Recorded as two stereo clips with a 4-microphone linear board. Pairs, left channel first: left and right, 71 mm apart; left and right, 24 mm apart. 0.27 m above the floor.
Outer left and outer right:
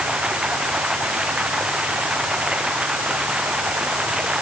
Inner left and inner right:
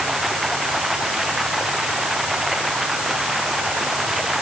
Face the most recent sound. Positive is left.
turn(degrees=-15)  # may be behind; listen again after turning